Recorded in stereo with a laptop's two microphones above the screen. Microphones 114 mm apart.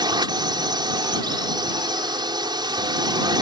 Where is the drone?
40° right (ahead or behind).